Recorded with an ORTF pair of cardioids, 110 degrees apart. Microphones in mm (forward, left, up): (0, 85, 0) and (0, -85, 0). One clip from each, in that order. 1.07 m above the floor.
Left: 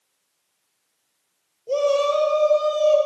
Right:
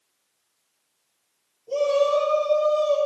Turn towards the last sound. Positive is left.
turn(degrees=75)